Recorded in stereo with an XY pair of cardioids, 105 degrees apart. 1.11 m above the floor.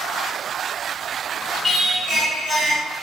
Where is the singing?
20° left, 1.8 m.